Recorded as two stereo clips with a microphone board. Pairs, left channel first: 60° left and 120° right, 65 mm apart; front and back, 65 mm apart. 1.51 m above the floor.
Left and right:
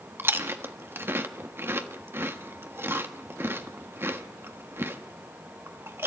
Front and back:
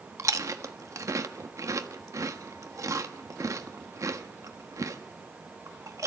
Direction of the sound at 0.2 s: 165° right.